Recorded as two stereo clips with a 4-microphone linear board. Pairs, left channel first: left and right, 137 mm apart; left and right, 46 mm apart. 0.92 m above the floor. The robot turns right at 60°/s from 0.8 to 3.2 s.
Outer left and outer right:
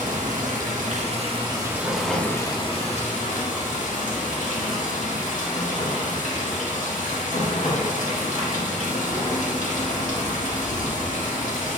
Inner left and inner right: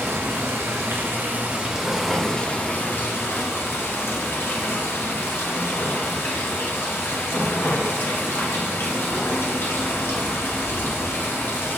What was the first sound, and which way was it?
Running water, 75° right.